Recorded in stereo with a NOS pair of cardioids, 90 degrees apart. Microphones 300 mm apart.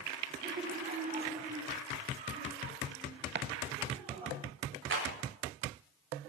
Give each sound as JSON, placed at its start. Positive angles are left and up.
{"t": 0.4, "sound": "laughter", "azimuth_deg": -30, "distance_m": 2.0}
{"t": 3.4, "sound": "chopping", "azimuth_deg": -40, "distance_m": 0.7}
{"t": 4.9, "sound": "a clap", "azimuth_deg": -40, "distance_m": 3.5}